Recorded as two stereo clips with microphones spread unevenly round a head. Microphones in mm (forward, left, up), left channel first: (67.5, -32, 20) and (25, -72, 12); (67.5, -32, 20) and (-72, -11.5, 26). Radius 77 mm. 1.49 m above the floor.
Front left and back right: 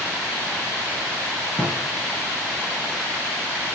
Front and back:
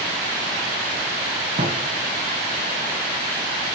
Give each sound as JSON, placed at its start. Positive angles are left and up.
{"t": 1.6, "sound": "a thud", "azimuth_deg": 120, "distance_m": 6.0}